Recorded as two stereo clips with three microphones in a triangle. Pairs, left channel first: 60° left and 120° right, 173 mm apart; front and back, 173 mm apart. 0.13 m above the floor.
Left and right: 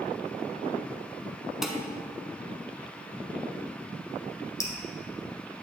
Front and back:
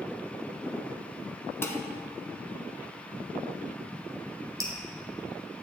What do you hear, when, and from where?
1.6 s dishes clattering: 35° right, 0.7 m
4.6 s dripping: 120° left, 1.2 m